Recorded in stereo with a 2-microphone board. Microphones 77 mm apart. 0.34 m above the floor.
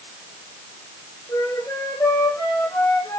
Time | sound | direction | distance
1.3 | a flute | 45° left (ahead or behind) | 8 m